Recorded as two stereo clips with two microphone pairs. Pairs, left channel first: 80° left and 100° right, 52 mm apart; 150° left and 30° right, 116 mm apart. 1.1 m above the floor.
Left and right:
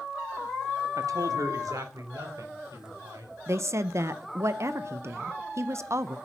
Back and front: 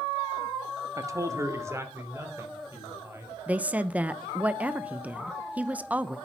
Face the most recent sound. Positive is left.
turn(degrees=-105)